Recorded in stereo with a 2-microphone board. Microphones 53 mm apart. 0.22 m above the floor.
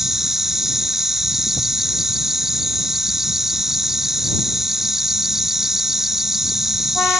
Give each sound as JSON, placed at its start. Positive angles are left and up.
{"t": 0.0, "sound": "an insect", "side_deg": -5}